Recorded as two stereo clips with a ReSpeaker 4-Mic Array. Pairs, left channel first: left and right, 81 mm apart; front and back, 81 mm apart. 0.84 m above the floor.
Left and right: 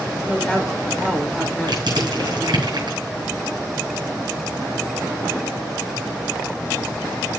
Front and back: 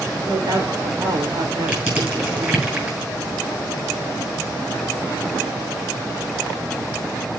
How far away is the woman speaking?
About 3 m.